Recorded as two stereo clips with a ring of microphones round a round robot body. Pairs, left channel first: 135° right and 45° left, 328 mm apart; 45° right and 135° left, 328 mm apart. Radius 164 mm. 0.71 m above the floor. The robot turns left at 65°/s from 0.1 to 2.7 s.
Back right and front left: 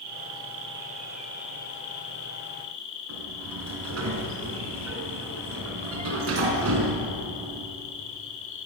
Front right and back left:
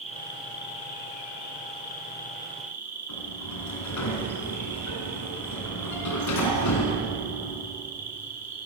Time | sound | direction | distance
0.0 | an insect | 30° left | 5.5 m
3.1 | a sliding door | 5° right | 4 m